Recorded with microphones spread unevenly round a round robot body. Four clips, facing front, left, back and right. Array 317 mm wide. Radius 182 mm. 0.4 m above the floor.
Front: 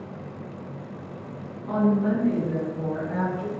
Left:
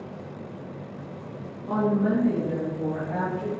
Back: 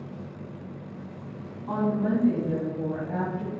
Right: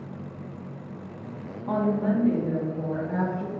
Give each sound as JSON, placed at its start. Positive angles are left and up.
{"t": 1.7, "sound": "a woman speaking", "azimuth_deg": -110, "distance_m": 2.5}